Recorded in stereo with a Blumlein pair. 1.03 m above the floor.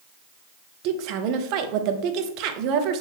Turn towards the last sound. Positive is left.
turn(degrees=-40)